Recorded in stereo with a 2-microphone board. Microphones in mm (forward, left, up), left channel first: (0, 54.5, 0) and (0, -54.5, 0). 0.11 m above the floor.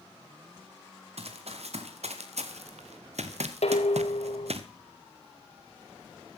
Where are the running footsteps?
70° right (ahead or behind), 3 m.